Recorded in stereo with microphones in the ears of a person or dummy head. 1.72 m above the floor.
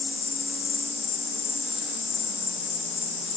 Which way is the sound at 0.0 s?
30° left (ahead or behind).